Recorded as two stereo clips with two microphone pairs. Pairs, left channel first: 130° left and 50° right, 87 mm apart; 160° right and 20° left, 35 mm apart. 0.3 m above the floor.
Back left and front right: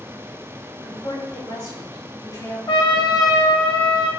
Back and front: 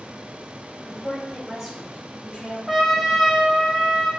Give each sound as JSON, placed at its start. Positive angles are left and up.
{"t": 0.8, "sound": "a woman speaking", "azimuth_deg": 140, "distance_m": 1.7}
{"t": 2.7, "sound": "a trumpet", "azimuth_deg": 110, "distance_m": 0.5}